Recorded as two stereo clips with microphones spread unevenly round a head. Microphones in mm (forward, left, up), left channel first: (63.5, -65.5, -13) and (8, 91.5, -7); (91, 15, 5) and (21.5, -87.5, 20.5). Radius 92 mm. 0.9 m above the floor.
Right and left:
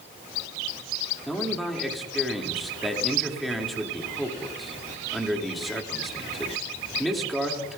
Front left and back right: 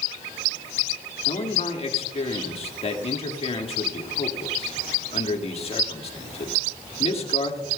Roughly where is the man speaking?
Ahead.